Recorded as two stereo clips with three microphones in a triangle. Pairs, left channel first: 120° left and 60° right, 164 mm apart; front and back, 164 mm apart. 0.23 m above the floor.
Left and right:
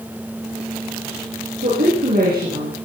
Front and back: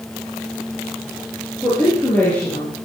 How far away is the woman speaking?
About 6.5 m.